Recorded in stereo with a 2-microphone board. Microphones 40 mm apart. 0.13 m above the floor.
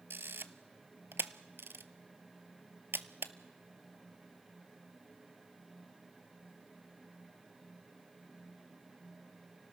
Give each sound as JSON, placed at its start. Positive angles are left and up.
{"t": 0.1, "sound": "a camera shutter", "side_deg": -70, "distance_m": 0.7}